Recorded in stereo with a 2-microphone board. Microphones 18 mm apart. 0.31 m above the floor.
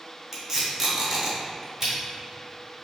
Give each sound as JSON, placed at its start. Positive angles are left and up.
{"t": 0.3, "sound": "tape being pulled", "side_deg": -20, "distance_m": 1.2}